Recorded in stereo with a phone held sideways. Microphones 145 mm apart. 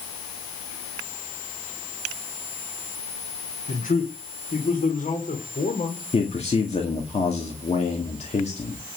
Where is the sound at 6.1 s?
50° left (ahead or behind), 2 m.